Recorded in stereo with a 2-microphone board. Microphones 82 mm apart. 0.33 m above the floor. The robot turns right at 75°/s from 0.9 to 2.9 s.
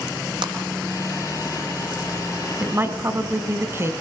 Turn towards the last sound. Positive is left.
turn(degrees=-35)  # may be behind; listen again after turning